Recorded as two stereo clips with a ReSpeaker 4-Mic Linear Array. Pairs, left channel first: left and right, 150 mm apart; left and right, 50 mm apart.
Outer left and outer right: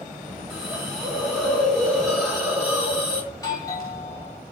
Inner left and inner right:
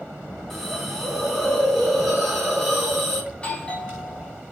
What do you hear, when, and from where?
0.5 s a hiss: 5° right (ahead or behind), 4.5 m
3.3 s a doorbell: 25° left (ahead or behind), 3 m